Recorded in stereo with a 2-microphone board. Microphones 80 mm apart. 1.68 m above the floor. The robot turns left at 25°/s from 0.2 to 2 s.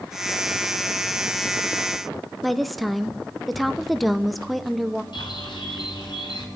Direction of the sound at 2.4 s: Centre (ahead or behind).